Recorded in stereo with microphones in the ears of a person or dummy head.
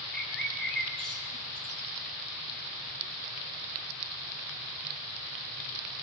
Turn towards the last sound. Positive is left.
turn(degrees=5)  # may be behind; listen again after turning